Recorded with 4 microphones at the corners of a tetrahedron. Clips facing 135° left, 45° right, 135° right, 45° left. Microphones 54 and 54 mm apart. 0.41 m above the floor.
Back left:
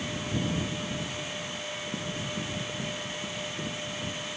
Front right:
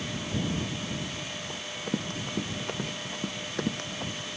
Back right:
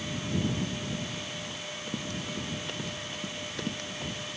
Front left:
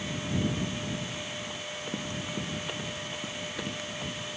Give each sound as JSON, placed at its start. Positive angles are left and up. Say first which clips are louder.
{"t": 1.5, "sound": "running footsteps", "louder": "front right 2 dB, front left 1 dB", "azimuth_deg": -25}